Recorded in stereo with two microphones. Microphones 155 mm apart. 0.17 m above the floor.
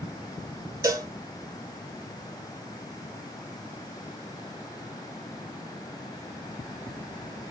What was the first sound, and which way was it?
A cowbell, 25° right (ahead or behind).